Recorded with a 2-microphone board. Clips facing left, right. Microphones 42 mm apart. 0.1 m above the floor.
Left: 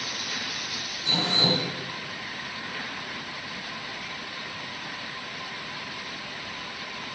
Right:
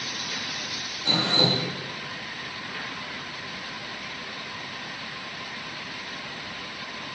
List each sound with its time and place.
1.1 s dripping: 35° right (ahead or behind), 9 m